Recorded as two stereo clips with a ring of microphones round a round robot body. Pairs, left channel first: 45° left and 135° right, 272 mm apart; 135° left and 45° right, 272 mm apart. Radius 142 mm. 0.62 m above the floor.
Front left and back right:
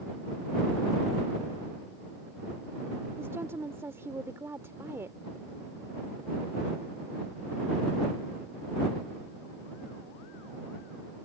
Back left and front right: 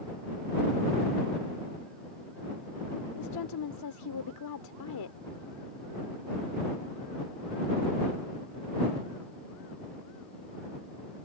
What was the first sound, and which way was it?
A woman speaking, 145° left.